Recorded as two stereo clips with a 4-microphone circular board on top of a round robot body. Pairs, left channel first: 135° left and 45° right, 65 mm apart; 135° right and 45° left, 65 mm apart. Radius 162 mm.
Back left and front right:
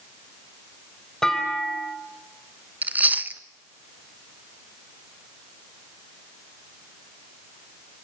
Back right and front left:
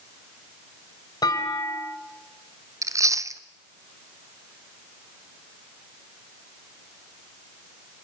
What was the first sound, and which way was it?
A clunk, 140° right.